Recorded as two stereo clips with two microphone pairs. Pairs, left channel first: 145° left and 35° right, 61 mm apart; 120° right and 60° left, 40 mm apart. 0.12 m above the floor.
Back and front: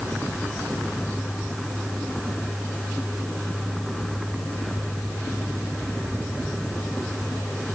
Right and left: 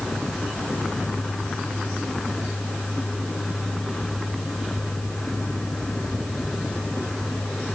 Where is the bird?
I don't hear a bird.